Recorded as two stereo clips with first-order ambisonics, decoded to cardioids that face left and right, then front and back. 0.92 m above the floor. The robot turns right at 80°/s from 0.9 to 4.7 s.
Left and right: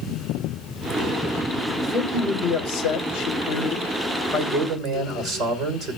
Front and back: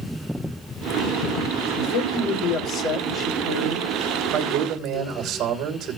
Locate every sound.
1.8 s a man speaking: 15° right, 3.5 m; by 6.0 s 140° right, 3.5 m